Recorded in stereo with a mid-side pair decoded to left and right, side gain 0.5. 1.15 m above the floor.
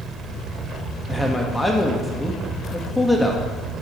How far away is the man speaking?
About 1.5 m.